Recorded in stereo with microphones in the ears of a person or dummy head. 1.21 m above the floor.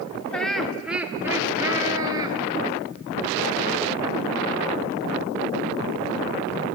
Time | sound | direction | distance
0.3 | laughter | 5° left (ahead or behind) | 2 m